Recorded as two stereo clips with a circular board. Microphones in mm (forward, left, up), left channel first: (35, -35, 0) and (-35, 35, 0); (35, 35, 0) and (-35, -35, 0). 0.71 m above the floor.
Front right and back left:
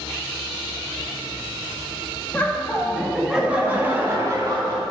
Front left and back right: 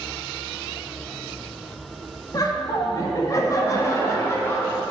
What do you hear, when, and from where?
2.3 s laughter: 20° left, 1.4 m; by 4.8 s 105° left, 1.5 m